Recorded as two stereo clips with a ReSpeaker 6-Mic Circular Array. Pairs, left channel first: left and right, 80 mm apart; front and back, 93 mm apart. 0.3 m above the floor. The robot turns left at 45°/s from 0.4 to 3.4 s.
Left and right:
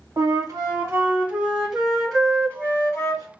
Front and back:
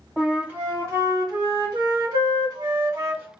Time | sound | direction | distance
0.2 | a flute | 110° right | 1.2 m